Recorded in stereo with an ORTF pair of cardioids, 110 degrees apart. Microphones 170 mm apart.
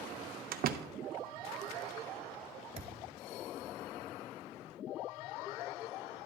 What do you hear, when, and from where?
0.5 s a door slam: 60° right, 0.8 m
2.8 s a thud: 35° right, 1.5 m